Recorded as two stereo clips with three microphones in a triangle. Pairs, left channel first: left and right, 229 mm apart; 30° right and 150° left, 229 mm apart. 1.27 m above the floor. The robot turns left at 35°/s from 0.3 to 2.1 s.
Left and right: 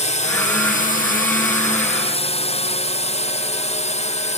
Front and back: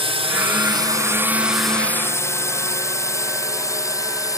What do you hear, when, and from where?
0.0 s a drone: 110° left; by 4.4 s 40° left